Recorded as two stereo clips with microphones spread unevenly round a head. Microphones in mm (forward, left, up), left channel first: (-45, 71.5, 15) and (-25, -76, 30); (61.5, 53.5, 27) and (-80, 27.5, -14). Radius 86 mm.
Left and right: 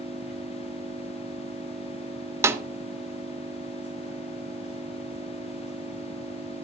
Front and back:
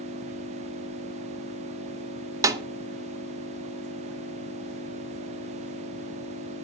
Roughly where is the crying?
No crying in this recording.